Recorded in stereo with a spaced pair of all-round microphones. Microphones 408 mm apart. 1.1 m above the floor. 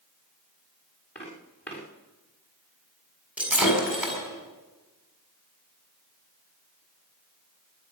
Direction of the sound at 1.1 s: 25° left (ahead or behind).